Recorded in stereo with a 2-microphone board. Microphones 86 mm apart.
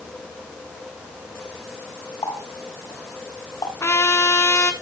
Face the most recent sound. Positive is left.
turn(degrees=35)  # may be behind; listen again after turning